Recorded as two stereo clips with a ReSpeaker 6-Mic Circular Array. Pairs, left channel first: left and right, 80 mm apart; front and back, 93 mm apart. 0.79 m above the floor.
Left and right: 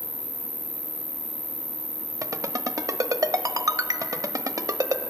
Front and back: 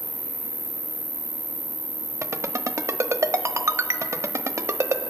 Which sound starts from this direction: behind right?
A ringtone, at 2.2 s.